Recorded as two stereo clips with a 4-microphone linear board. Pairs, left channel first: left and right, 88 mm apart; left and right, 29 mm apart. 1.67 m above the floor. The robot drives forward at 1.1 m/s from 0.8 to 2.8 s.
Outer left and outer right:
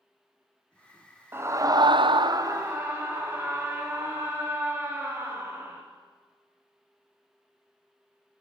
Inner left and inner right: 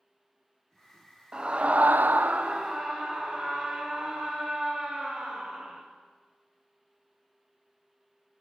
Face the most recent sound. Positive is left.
turn(degrees=-25)  # may be behind; listen again after turning